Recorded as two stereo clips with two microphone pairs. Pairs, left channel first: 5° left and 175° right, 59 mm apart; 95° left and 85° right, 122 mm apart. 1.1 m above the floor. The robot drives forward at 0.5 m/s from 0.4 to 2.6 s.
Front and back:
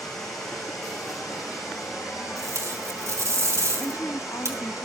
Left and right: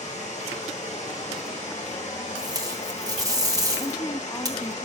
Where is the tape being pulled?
140° right, 2 m.